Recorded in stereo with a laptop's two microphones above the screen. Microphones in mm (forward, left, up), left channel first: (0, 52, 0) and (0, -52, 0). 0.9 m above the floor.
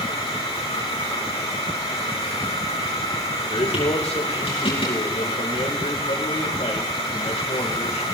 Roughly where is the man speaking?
Left.